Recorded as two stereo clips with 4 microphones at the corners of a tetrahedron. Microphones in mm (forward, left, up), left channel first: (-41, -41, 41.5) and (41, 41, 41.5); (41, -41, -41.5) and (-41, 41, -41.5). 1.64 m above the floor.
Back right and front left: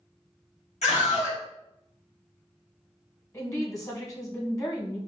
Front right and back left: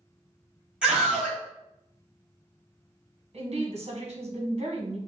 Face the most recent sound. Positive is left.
turn(degrees=165)